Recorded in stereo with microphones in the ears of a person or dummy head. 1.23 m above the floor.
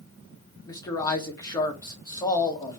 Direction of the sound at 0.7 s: 20° left (ahead or behind).